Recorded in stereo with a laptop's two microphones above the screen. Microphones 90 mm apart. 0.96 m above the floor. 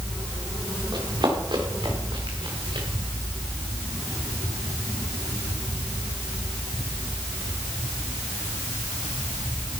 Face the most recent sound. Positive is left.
turn(degrees=-65)  # may be behind; listen again after turning